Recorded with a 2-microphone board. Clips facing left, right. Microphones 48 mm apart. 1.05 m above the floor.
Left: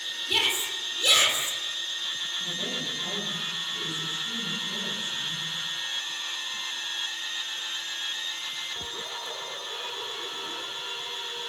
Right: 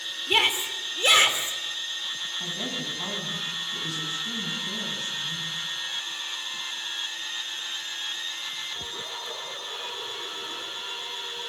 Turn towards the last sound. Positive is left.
turn(degrees=-85)